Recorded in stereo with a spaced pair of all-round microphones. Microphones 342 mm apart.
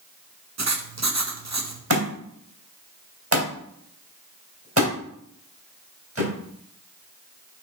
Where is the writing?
50° right (ahead or behind), 0.8 m.